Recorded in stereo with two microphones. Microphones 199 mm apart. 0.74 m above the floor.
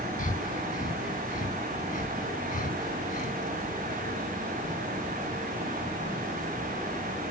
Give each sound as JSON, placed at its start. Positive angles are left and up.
{"t": 0.2, "sound": "breathing", "side_deg": 45, "distance_m": 1.0}